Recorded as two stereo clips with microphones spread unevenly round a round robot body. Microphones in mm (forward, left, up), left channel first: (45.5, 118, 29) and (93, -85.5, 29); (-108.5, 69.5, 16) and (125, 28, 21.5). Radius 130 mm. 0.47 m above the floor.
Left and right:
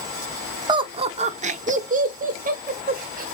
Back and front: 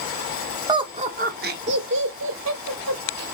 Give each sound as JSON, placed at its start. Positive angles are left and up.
{"t": 0.7, "sound": "laughter", "azimuth_deg": -55, "distance_m": 0.8}